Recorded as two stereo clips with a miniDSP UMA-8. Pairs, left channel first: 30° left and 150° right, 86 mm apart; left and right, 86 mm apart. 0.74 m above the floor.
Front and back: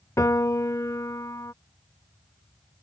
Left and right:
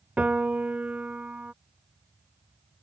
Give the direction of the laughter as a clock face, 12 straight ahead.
No laughter in this recording.